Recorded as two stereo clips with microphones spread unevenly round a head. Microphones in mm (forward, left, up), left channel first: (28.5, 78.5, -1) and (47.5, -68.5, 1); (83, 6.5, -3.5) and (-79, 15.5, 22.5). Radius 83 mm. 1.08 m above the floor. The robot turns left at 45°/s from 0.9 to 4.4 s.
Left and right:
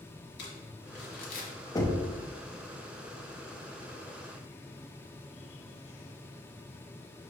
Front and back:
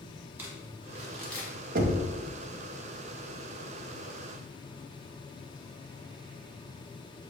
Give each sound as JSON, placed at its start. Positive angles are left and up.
{"t": 0.4, "sound": "crumpling", "azimuth_deg": 95, "distance_m": 1.2}
{"t": 1.8, "sound": "knocking", "azimuth_deg": 165, "distance_m": 0.5}